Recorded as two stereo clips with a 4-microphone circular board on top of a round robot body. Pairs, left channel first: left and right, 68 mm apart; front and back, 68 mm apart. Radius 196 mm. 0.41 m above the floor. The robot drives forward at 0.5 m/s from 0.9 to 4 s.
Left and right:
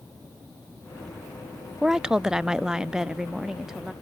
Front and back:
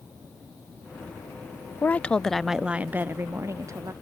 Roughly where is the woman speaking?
Ahead.